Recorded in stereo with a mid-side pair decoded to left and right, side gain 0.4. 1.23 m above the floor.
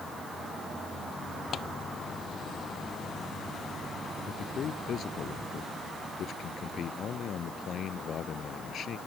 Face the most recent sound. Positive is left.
turn(degrees=60)